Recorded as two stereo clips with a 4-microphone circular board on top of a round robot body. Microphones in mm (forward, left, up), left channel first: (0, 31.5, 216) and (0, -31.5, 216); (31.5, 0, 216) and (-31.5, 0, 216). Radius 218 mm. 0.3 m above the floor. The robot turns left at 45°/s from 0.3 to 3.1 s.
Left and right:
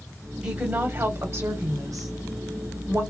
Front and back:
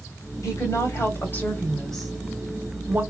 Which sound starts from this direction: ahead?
A woman speaking, at 0.4 s.